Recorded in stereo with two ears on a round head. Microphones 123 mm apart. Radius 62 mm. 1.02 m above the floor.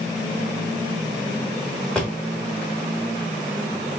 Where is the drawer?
5° left (ahead or behind), 0.9 m.